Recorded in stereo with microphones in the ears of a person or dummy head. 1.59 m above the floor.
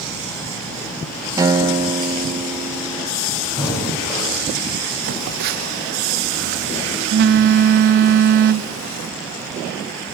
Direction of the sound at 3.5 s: 20° left (ahead or behind).